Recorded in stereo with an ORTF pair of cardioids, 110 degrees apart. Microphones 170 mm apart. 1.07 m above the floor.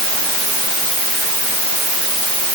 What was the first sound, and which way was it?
Only background noise.